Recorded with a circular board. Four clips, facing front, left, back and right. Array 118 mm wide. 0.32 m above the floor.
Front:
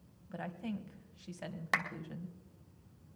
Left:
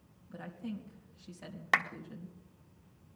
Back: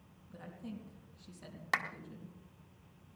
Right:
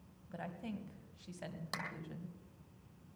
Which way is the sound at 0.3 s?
20° right.